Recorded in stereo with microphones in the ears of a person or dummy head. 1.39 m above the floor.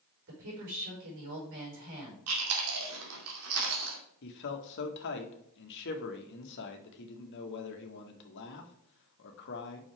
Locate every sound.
0.3 s a woman speaking: 65° right (ahead or behind), 5 m
2.3 s chewing: 80° right, 2.5 m
4.2 s a man speaking: 65° left (ahead or behind), 1.6 m